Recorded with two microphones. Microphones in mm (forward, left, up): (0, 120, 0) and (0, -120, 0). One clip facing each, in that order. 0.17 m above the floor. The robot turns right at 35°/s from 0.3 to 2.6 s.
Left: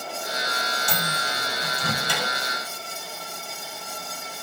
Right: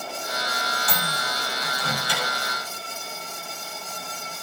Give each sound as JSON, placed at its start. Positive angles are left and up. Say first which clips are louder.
{"t": 0.9, "sound": "a microwave", "louder": "even", "side_deg": 15, "distance_m": 3.5}